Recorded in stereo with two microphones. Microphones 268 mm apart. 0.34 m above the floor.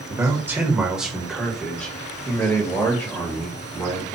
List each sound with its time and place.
0.1 s a man speaking: 10° right (ahead or behind), 1.2 m; by 4.2 s 15° left (ahead or behind), 2 m